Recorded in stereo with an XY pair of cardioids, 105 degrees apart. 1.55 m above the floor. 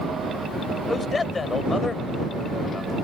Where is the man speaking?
30° left.